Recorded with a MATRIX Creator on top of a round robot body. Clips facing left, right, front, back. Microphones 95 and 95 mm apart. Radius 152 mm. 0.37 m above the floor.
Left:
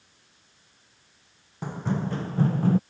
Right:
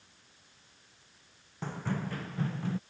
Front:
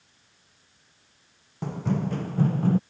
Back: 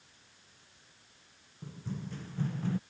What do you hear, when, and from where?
1.6 s running footsteps: 15° left; by 2.8 s 45° left